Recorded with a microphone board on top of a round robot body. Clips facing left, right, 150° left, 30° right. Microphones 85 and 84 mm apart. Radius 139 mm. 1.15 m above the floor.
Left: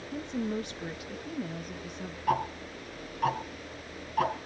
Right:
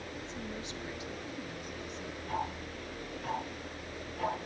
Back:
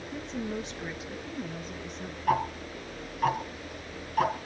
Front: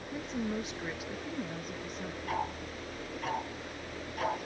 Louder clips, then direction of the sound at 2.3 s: Left 8 dB, back 9 dB; 110° left.